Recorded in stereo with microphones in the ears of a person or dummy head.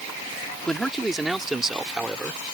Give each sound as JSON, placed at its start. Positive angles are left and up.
{"t": 0.7, "sound": "a man speaking", "side_deg": 5}